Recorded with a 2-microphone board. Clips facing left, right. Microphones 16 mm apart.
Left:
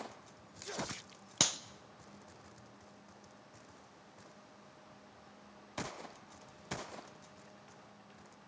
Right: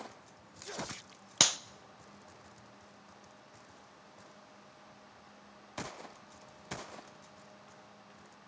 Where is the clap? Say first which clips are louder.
Right 5 dB; 30° right (ahead or behind), 0.7 m.